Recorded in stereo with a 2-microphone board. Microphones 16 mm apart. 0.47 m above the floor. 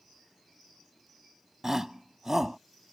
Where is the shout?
25° right (ahead or behind).